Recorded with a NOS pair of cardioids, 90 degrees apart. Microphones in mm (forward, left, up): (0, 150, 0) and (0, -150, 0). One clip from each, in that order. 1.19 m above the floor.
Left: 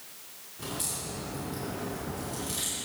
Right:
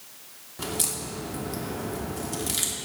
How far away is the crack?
About 2.5 m.